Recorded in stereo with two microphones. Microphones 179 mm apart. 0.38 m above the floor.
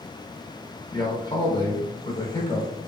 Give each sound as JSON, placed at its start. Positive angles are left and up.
{"t": 0.9, "sound": "a man speaking", "side_deg": 25, "distance_m": 1.0}